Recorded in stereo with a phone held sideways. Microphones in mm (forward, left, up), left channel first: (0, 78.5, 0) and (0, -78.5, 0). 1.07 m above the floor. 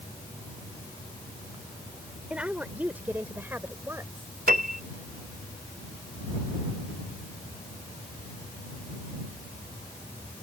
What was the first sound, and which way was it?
A woman speaking, 10° right (ahead or behind).